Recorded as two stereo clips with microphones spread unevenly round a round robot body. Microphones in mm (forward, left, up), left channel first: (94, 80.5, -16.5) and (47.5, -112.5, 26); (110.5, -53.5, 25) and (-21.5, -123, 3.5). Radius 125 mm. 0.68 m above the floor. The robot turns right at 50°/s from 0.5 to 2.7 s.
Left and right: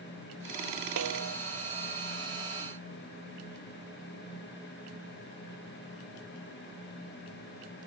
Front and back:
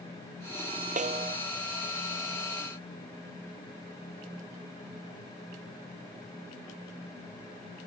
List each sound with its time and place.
1.0 s a snare drum: 115° right; by 1.4 s 95° right